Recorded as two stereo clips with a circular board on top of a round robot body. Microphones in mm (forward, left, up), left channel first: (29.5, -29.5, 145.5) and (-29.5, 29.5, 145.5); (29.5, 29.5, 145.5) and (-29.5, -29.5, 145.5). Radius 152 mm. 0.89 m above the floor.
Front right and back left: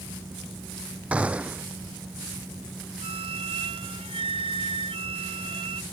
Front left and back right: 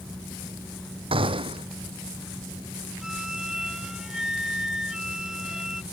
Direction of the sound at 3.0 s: 140° left.